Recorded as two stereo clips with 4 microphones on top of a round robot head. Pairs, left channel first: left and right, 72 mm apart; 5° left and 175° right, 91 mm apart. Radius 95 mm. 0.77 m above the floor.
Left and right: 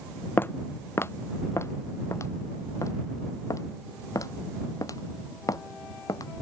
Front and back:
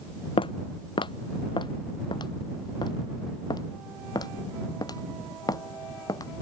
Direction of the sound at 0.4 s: 30° left.